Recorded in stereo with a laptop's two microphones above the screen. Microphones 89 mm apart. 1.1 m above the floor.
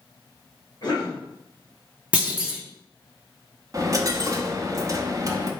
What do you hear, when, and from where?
0.8 s a cough: 50° left (ahead or behind), 1.7 m
2.1 s a clunk: 15° right (ahead or behind), 0.8 m
3.7 s a dropped coin: 40° right (ahead or behind), 0.7 m